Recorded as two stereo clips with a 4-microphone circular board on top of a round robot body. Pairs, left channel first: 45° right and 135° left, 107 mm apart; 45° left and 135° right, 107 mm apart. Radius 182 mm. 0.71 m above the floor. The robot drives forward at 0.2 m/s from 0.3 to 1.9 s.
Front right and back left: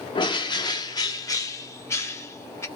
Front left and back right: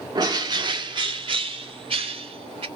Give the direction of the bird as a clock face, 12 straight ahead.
3 o'clock.